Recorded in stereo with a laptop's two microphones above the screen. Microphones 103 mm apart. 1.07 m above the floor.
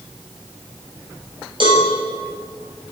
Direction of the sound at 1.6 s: 55° right (ahead or behind).